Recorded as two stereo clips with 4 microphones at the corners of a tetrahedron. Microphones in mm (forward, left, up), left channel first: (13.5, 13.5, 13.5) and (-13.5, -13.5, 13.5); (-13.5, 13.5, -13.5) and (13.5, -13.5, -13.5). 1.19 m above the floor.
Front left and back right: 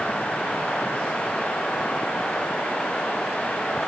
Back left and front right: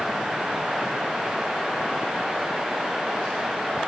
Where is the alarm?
No alarm in this recording.